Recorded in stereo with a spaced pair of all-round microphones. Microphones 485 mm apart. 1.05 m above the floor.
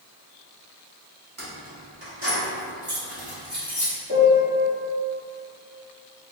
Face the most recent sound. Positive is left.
turn(degrees=-15)  # may be behind; listen again after turning